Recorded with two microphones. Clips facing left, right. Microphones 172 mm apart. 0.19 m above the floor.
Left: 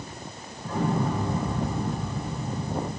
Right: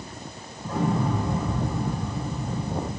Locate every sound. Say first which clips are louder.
0.6 s an explosion: right 1 dB; 5° right (ahead or behind), 7.5 m